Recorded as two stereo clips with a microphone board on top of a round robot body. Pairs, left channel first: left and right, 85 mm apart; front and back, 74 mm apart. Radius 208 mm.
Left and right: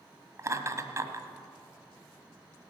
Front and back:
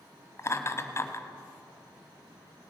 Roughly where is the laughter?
Ahead right.